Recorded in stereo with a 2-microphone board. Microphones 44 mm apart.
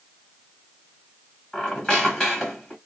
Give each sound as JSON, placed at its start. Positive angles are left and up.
{"t": 1.5, "sound": "a squeak", "side_deg": 15, "distance_m": 0.8}